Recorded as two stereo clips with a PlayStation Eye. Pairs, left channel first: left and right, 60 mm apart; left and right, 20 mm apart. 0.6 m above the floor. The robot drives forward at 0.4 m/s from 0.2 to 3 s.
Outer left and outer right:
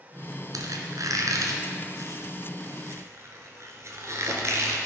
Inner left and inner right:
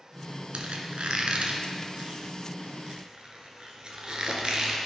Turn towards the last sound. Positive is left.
turn(degrees=-50)  # may be behind; listen again after turning